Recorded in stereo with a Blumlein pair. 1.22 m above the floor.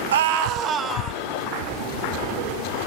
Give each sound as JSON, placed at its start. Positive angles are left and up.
{"t": 0.1, "sound": "a scream", "azimuth_deg": -60, "distance_m": 1.2}